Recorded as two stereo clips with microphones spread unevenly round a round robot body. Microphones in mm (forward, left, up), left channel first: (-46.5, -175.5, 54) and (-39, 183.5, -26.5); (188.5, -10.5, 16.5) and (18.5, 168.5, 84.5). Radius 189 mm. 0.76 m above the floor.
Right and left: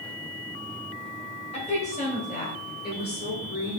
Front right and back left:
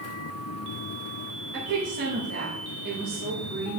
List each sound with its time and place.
1.5 s a woman speaking: 165° right, 4.5 m; by 3.8 s 150° right, 3 m